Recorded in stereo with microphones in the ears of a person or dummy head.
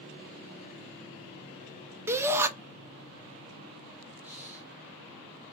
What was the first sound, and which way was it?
A shout, 10° right (ahead or behind).